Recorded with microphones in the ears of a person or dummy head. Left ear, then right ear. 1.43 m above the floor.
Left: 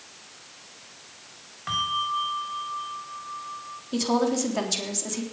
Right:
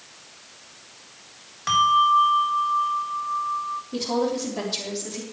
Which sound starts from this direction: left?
A woman speaking, at 3.9 s.